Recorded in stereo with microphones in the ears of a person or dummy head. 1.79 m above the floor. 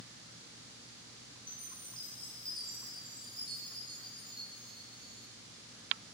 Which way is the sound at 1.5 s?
25° left (ahead or behind).